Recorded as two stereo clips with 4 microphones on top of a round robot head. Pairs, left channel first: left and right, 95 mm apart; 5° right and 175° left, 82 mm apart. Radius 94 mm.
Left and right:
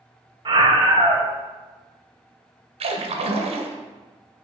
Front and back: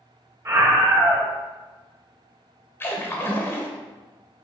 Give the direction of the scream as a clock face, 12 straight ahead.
4 o'clock.